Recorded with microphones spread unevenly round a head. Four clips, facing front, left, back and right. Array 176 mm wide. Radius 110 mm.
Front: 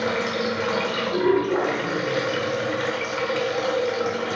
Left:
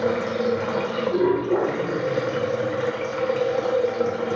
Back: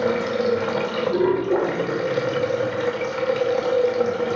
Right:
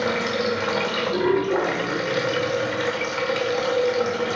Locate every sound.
0.0 s running water: 175° left, 1.3 m